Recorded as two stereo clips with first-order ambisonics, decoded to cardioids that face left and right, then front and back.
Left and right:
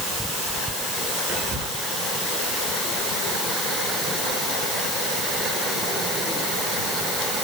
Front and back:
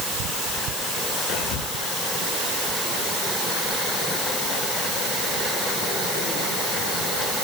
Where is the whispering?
25° right, 7.5 m.